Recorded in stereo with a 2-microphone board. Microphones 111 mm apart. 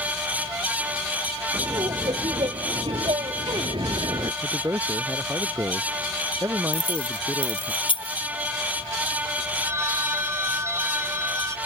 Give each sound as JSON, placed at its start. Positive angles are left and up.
{"t": 1.5, "sound": "laughter", "side_deg": -45}
{"t": 4.4, "sound": "a man speaking", "side_deg": -25}
{"t": 6.7, "sound": "keys jangling", "side_deg": 55}
{"t": 9.6, "sound": "a phone ringing", "side_deg": -25}